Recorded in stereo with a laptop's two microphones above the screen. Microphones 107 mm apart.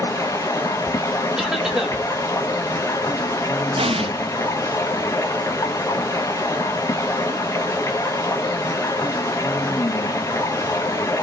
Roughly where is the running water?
Left.